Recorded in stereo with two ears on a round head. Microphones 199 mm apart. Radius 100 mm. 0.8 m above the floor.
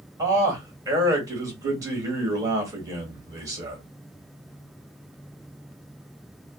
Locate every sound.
0.2 s a man speaking: 15° right (ahead or behind), 1.4 m